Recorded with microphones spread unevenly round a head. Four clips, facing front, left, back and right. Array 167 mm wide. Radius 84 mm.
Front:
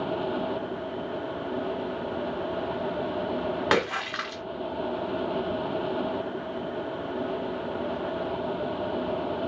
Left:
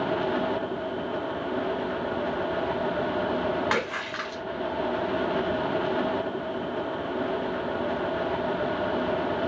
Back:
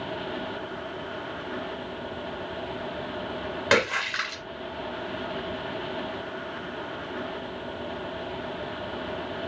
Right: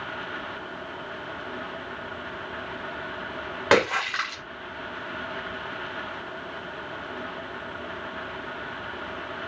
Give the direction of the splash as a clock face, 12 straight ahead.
2 o'clock.